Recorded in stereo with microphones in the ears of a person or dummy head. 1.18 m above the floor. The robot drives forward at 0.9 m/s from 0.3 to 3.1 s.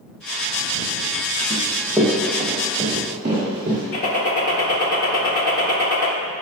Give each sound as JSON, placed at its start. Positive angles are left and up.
{"t": 1.5, "sound": "running footsteps", "side_deg": 25, "distance_m": 1.8}
{"t": 3.9, "sound": "a gunshot", "side_deg": 45, "distance_m": 1.2}